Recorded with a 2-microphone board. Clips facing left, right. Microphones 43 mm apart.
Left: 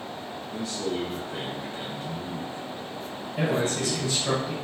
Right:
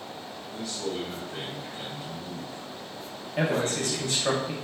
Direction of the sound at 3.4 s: 50° right (ahead or behind).